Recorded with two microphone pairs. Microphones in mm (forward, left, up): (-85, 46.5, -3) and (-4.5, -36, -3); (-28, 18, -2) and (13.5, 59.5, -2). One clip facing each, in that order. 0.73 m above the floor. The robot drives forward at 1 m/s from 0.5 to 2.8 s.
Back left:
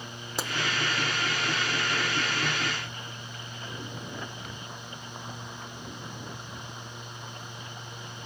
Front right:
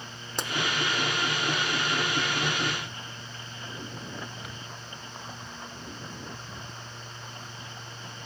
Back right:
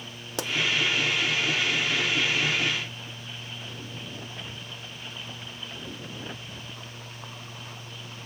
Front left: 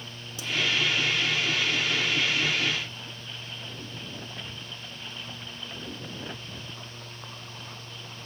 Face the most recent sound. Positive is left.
turn(degrees=-170)